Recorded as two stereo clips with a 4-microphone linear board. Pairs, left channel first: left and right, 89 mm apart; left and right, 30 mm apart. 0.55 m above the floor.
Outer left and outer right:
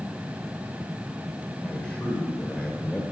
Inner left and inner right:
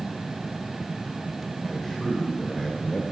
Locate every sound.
1.6 s a man speaking: 15° left (ahead or behind), 1.7 m